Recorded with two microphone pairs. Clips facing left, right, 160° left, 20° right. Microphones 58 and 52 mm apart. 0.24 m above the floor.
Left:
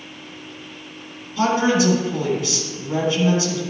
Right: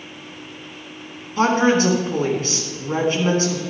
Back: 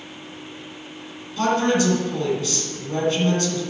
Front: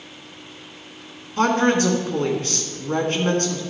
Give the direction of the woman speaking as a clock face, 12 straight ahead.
2 o'clock.